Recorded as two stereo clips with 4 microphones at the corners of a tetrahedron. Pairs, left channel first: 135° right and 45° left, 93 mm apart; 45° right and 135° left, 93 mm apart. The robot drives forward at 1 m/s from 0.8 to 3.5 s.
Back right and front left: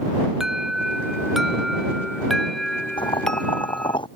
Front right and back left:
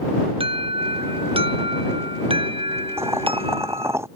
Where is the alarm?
130° left; by 4.0 s 140° left.